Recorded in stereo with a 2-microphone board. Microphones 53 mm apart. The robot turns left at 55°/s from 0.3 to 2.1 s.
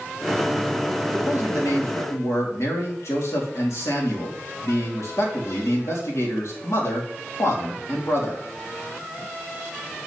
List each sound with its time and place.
1.1 s a man speaking: 120° left, 2.5 m; by 8.4 s 70° left, 2.5 m